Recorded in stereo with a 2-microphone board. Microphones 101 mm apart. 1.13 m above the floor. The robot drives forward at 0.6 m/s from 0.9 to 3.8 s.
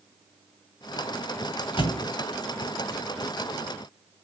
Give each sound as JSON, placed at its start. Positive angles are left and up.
{"t": 1.8, "sound": "a thud", "side_deg": 55, "distance_m": 1.5}